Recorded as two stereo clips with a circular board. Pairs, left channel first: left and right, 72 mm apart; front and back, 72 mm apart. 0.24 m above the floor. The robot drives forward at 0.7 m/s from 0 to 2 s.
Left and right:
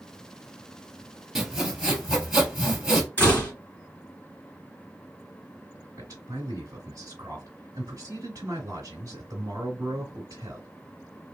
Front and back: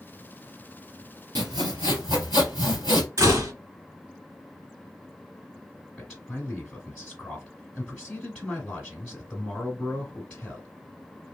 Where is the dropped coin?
No dropped coin in this recording.